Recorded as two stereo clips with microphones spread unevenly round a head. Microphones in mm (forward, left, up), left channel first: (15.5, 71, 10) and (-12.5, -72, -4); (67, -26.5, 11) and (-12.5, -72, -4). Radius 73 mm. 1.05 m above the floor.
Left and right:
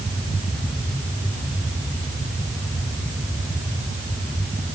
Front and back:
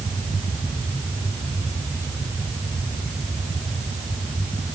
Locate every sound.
Only background noise.